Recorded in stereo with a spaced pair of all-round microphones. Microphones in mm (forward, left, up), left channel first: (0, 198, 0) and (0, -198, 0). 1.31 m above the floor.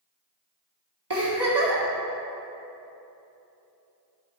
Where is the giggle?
70° right (ahead or behind), 1.7 m.